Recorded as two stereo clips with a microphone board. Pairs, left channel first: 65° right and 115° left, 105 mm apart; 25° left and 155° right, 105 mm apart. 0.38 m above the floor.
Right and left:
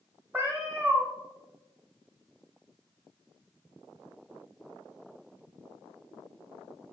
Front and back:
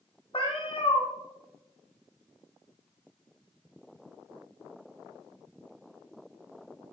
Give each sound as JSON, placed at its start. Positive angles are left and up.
{"t": 0.3, "sound": "a cat meowing", "azimuth_deg": 45, "distance_m": 1.0}